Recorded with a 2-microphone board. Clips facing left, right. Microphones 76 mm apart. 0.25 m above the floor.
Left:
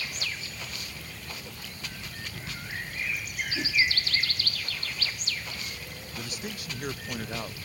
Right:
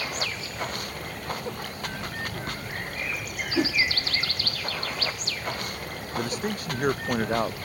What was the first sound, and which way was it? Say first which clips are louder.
Running water: right 5 dB; 55° right (ahead or behind).